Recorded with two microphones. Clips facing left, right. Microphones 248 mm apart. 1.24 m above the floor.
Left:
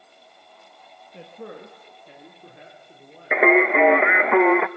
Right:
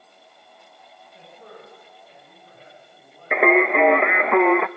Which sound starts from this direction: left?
A man speaking, at 1.1 s.